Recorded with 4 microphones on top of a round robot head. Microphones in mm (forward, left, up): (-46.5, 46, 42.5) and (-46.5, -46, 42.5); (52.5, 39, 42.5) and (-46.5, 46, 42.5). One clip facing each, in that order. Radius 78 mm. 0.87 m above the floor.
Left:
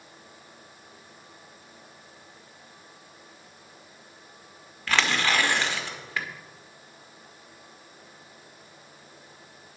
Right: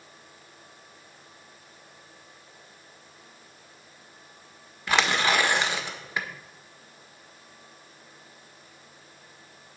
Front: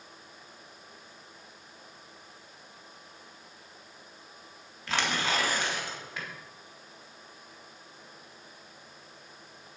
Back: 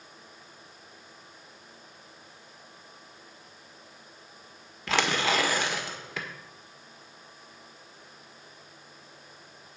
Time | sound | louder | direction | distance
4.9 | tearing paper | right 1 dB, back 4 dB | 160° right | 1.4 m